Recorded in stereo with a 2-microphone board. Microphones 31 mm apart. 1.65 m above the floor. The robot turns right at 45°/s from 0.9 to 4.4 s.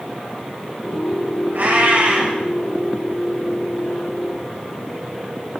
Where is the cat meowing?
80° right, 4 m; by 2.4 s 45° right, 4 m.